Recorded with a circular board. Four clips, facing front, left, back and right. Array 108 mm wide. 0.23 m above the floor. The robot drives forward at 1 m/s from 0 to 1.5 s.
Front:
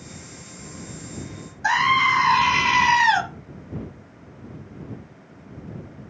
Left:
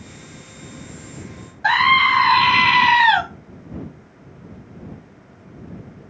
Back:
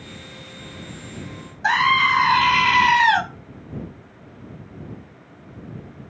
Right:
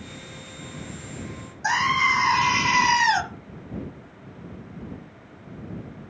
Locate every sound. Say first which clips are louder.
1.6 s a scream: left 6 dB, back 1 dB; 105° left, 1.1 m